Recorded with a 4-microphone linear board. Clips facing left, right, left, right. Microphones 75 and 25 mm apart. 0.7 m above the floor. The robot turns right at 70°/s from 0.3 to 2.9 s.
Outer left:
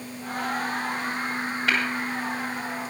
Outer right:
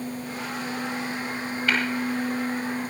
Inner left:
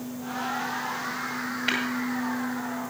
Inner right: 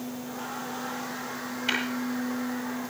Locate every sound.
1.7 s tapping: 75° left (ahead or behind), 9 m; by 1.8 s 70° left (ahead or behind), 9 m